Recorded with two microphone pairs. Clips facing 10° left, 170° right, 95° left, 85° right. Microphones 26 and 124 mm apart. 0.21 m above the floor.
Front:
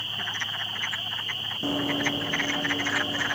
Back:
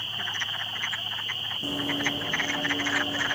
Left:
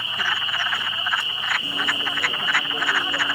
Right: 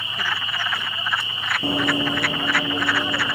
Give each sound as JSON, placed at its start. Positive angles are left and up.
{"t": 1.6, "sound": "running footsteps", "azimuth_deg": -55, "distance_m": 0.9}